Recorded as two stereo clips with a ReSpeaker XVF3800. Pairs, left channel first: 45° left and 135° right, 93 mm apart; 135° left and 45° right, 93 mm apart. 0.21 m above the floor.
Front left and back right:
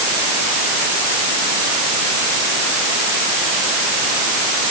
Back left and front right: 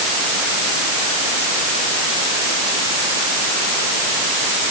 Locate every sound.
Only background noise.